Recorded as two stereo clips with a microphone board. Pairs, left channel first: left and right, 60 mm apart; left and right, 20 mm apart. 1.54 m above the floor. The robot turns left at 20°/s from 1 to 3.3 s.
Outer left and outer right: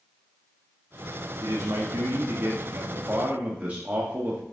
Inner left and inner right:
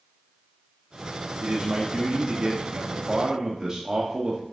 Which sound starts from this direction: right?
A man speaking, at 1.4 s.